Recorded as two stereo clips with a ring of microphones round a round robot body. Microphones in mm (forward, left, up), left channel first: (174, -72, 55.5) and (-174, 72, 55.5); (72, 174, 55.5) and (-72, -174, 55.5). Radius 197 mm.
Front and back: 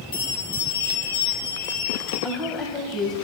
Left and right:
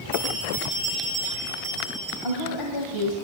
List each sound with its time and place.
0.1 s a bell: 30° right, 7.5 m
2.2 s a woman speaking: 65° left, 2 m